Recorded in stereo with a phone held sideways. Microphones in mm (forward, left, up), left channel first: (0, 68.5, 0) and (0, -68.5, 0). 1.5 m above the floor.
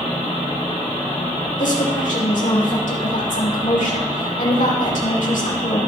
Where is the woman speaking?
70° left (ahead or behind), 6 m.